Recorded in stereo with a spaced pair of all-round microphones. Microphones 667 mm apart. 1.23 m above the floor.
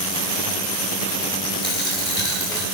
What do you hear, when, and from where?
1.6 s a dropped coin: 15° right (ahead or behind), 3 m